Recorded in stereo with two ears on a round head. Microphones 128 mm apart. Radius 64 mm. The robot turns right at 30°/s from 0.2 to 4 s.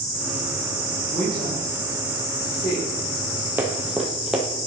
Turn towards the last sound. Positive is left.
turn(degrees=-5)  # may be behind; listen again after turning